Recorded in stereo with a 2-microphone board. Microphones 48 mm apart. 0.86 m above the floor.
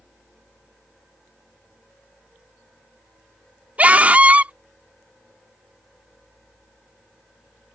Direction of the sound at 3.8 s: 30° right (ahead or behind).